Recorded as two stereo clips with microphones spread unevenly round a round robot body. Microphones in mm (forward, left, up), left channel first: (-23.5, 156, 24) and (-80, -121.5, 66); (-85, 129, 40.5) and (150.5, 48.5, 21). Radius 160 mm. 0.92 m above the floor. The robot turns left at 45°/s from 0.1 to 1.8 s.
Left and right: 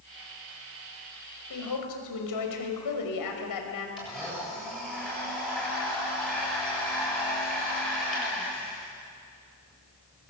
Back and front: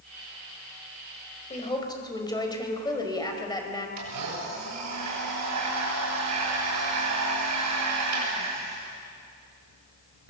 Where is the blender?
10° right, 7.5 m.